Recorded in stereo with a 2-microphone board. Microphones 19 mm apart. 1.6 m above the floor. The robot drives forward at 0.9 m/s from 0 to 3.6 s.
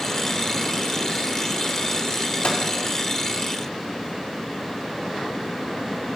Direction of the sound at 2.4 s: 65° left (ahead or behind).